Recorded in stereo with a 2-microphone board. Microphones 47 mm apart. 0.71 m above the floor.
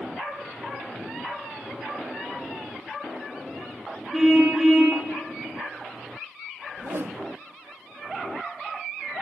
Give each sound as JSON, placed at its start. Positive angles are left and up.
{"t": 4.1, "sound": "a car horn", "side_deg": -5, "distance_m": 5.0}
{"t": 6.8, "sound": "a whoosh", "side_deg": -60, "distance_m": 0.8}